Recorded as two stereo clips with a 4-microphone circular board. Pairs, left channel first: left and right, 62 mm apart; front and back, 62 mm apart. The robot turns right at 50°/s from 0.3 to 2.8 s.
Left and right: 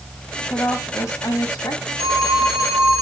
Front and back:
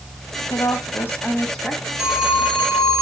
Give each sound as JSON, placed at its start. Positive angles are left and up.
{"t": 0.5, "sound": "a woman speaking", "azimuth_deg": 30, "distance_m": 3.0}
{"t": 2.0, "sound": "a phone ringing", "azimuth_deg": 100, "distance_m": 3.0}